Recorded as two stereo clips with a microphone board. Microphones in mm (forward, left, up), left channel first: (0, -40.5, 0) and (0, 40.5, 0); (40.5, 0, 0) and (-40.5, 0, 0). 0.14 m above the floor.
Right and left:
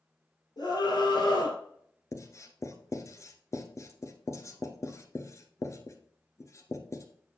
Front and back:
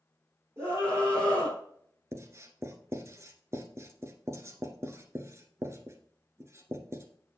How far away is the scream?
About 3.5 m.